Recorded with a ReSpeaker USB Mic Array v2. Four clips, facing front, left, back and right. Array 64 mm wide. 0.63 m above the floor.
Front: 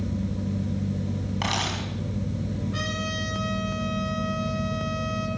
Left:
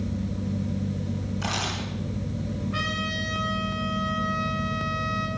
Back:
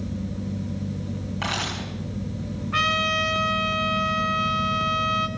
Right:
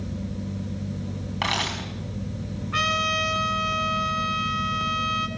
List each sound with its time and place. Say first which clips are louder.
1.4 s a camera shutter: right 5 dB, even; 80° right, 5.5 m
2.7 s a trumpet: right 8 dB, back 8 dB; 150° right, 2.5 m